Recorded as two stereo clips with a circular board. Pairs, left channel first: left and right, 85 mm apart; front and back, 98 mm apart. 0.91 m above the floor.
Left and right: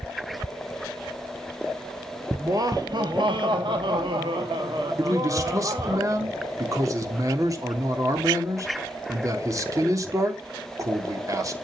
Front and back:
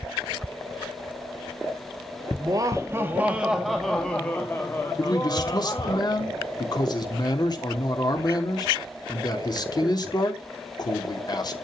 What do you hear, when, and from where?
2.4 s laughter: 135° right, 1.6 m; by 6.0 s 50° right, 3 m
5.0 s a man speaking: 40° right, 3 m